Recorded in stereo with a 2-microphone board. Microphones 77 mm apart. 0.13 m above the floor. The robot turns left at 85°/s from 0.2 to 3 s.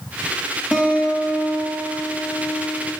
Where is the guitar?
155° right, 2.5 m; by 2.9 s 15° left, 2.5 m.